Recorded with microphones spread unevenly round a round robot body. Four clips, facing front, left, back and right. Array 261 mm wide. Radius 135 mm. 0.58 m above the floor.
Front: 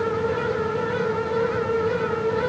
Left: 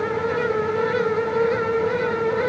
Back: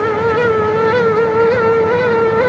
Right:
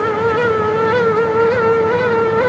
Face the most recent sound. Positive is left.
No sound to turn to.